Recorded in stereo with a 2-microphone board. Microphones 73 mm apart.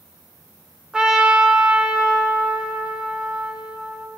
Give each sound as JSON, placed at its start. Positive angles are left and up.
{"t": 0.9, "sound": "a trumpet", "side_deg": -10, "distance_m": 2.0}